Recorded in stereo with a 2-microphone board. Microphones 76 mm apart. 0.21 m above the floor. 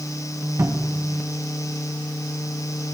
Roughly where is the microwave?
No microwave in this recording.